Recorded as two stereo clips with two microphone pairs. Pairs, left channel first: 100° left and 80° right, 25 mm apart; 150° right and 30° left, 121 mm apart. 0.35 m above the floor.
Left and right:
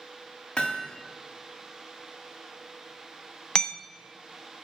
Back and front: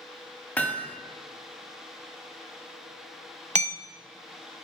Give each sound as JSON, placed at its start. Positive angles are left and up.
{"t": 0.6, "sound": "hammering", "azimuth_deg": 135, "distance_m": 1.4}
{"t": 3.5, "sound": "hammering", "azimuth_deg": 45, "distance_m": 0.7}